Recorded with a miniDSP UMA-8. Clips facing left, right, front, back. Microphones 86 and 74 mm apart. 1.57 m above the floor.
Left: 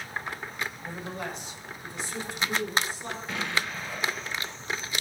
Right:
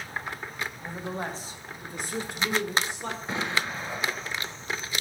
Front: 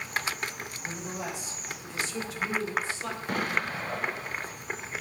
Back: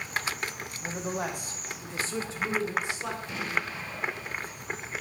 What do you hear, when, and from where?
0.8 s a man speaking: 160° right, 1.1 m; by 3.2 s 100° right, 1.4 m
3.3 s an explosion: 30° right, 0.5 m